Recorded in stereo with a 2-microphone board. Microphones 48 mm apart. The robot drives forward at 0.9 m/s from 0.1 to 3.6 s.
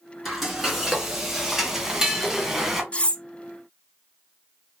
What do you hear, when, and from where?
0.2 s frying: 5° right (ahead or behind), 2.5 m; by 2.8 s 10° right (ahead or behind), 1.4 m
2.9 s cutlery clinking: 25° left (ahead or behind), 0.7 m; by 3.2 s 20° left (ahead or behind), 0.7 m